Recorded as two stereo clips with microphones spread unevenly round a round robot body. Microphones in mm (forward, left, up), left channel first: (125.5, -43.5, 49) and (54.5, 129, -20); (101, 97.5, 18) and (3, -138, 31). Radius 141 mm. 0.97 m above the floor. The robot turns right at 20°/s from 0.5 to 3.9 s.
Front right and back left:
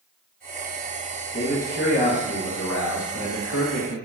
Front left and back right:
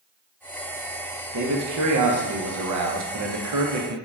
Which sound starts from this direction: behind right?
A man speaking, at 1.3 s.